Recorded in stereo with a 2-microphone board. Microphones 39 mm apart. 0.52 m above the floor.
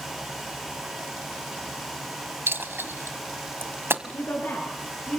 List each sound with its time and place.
2.5 s a dropped coin: 75° right (ahead or behind), 1.4 m
4.0 s a woman speaking: 65° left (ahead or behind), 7.5 m